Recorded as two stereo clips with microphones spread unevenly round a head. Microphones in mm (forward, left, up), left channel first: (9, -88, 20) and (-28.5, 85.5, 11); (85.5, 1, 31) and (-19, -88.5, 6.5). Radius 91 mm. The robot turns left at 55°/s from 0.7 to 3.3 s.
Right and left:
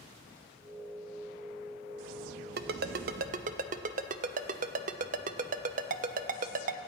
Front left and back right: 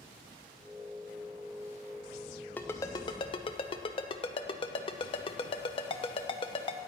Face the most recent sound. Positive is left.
turn(degrees=70)